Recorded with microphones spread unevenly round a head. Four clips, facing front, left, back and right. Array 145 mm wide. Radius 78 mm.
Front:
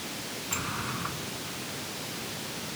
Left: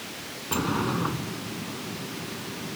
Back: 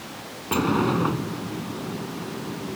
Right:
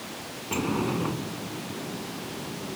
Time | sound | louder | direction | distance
0.5 | a sliding door | even, back 15 dB | 170° right | ?